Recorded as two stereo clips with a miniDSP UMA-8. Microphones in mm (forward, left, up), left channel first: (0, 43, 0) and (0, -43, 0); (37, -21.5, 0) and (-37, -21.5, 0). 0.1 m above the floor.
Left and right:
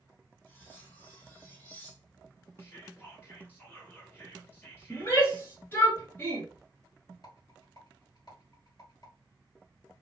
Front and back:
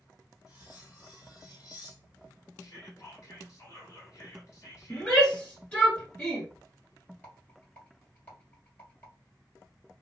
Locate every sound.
0.5 s cutlery clinking: 25° left, 2.5 m
2.6 s whispering: 30° left, 2.0 m
4.9 s a shout: 60° left, 1.8 m
7.2 s a rattle: 65° left, 2.5 m